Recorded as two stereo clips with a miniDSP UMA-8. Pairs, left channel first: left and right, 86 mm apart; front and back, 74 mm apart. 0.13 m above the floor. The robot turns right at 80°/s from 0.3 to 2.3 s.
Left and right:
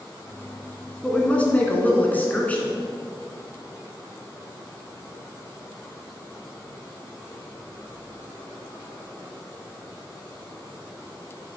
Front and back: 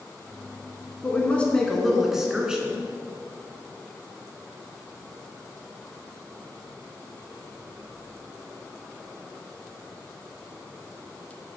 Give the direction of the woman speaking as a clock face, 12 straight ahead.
11 o'clock.